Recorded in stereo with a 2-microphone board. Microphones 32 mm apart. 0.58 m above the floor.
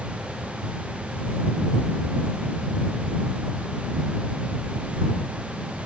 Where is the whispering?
No whispering in this recording.